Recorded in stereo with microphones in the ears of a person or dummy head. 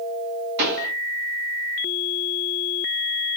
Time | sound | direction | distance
0.6 | a pop | 65° right (ahead or behind) | 3 m